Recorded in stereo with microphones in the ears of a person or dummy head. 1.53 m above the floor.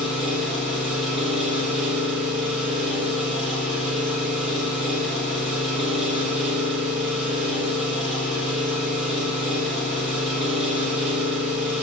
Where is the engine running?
5° left (ahead or behind), 0.8 m.